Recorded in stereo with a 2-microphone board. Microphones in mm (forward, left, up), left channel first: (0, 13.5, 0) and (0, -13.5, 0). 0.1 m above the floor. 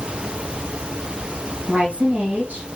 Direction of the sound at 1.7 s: 55° right (ahead or behind).